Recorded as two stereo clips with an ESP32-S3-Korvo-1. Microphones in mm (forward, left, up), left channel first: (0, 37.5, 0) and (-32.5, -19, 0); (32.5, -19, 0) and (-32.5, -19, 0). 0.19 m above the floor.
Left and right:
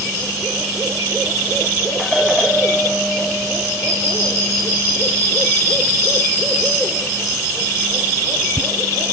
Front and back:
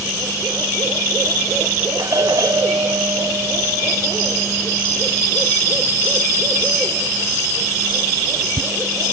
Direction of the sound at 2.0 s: 155° left.